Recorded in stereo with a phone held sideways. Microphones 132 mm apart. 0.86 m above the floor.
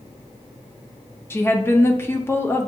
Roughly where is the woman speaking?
Centre.